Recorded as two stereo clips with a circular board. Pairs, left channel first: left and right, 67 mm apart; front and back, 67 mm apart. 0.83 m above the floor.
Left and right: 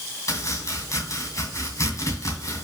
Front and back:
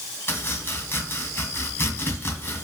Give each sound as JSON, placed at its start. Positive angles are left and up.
{"t": 0.3, "sound": "chopping", "azimuth_deg": 55, "distance_m": 2.0}